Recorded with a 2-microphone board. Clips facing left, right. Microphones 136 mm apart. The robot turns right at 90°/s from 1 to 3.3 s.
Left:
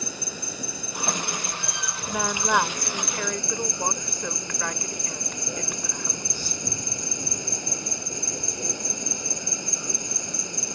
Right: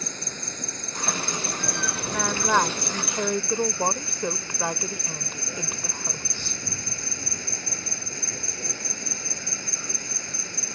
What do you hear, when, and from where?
0.0 s an insect: 170° left; by 10.8 s 20° left
2.1 s a woman speaking: 10° left (ahead or behind); by 6.6 s 25° right (ahead or behind)